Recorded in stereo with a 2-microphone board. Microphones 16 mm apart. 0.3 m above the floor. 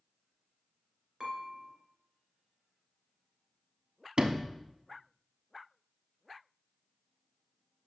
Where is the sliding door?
70° right (ahead or behind), 0.7 m.